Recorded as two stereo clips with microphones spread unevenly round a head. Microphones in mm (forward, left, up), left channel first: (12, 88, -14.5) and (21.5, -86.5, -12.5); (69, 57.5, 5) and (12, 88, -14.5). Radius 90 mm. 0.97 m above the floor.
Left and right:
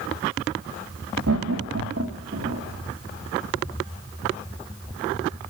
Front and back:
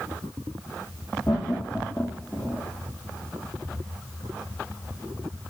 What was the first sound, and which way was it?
Laughter, 100° right.